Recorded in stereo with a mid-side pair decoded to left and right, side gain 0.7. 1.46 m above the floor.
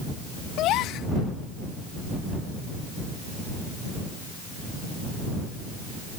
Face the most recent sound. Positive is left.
turn(degrees=60)